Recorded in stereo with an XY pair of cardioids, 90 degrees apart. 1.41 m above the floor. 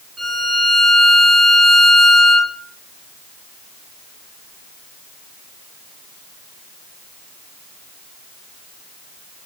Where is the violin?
25° right, 1.2 m.